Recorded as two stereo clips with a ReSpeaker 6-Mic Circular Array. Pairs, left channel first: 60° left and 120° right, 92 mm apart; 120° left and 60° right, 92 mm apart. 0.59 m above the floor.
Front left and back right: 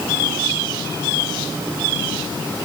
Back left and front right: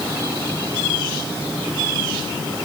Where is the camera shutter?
No camera shutter in this recording.